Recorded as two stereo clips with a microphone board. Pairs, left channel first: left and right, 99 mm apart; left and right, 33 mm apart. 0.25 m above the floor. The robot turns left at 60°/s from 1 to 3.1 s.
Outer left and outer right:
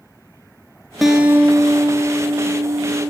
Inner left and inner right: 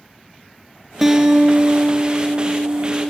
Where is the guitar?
Straight ahead, 2 m; by 3.1 s 125° right, 2 m.